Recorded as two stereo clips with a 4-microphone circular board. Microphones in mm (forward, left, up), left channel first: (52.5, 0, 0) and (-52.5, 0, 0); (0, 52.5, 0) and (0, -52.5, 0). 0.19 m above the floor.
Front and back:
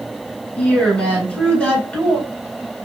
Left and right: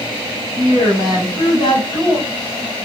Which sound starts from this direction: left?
A woman speaking, at 0.6 s.